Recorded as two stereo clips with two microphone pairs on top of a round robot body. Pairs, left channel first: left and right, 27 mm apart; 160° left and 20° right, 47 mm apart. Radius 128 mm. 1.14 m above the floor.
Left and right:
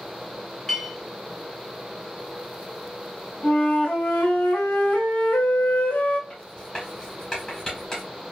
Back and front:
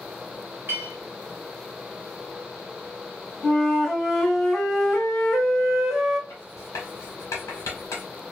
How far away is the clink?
About 0.7 m.